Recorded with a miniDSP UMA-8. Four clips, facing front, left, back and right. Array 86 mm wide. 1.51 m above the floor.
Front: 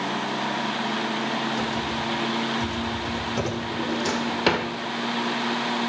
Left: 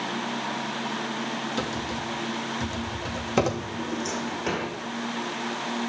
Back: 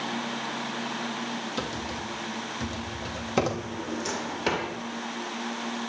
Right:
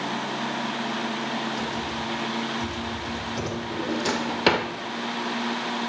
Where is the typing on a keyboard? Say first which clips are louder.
Right 1 dB, front 6 dB; 125° left, 2.5 m.